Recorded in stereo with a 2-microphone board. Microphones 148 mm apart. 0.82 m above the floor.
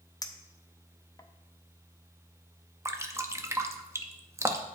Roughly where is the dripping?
Centre.